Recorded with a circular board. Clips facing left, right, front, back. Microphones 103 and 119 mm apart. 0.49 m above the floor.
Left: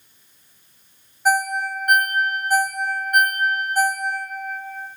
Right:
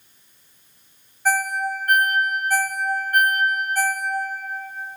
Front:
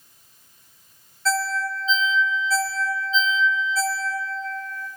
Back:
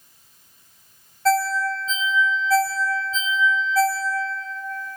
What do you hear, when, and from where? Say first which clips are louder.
1.2 s a ringtone: left 2 dB, back 5 dB; 160° left, 0.6 m